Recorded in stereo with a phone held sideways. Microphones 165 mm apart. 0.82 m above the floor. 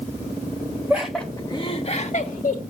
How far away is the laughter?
About 0.9 m.